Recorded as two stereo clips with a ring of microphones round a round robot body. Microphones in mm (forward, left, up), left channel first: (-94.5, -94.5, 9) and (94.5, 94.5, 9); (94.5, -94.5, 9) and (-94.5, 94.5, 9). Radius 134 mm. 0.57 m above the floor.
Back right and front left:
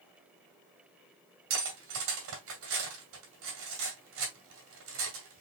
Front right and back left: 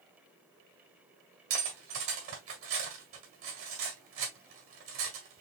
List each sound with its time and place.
1.5 s cutlery clinking: 90° left, 1.9 m